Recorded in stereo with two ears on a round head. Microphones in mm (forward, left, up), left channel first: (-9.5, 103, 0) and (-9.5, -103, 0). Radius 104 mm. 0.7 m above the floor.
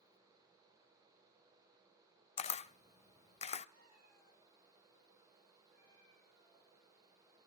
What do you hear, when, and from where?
2.4 s a camera shutter: 30° left (ahead or behind), 0.7 m
3.7 s a cat meowing: 40° right (ahead or behind), 9.5 m